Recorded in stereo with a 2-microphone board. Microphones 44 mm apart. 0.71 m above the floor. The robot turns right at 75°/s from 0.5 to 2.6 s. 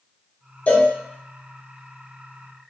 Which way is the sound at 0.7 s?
35° left (ahead or behind).